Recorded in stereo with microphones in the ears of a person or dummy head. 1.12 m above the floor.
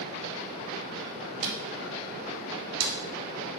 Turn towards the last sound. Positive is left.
turn(degrees=-70)  # may be behind; listen again after turning